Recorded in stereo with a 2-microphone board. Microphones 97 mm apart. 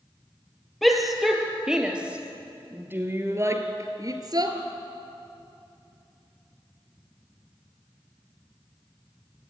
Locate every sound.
0.8 s a shout: centre (ahead or behind), 3.5 m; by 4.6 s 50° right (ahead or behind), 2.5 m